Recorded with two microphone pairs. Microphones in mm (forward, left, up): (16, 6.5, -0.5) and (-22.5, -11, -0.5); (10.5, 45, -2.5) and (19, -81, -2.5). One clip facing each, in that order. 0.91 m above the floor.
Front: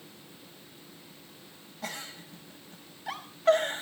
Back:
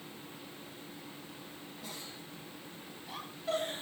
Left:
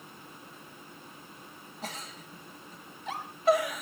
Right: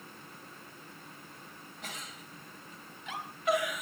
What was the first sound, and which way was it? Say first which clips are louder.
A giggle: front 10 dB, left 5 dB; 40° left.